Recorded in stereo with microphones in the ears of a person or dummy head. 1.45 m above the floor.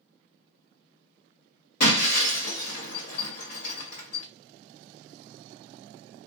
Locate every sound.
1.8 s breaking glass: 70° left (ahead or behind), 1.6 m